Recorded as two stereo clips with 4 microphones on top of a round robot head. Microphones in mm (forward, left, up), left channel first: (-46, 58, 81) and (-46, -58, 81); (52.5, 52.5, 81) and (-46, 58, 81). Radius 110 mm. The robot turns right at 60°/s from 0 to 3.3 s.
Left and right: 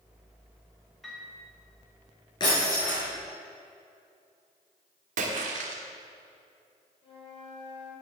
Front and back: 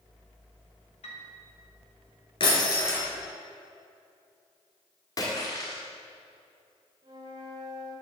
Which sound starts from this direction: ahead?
A piano, at 1.0 s.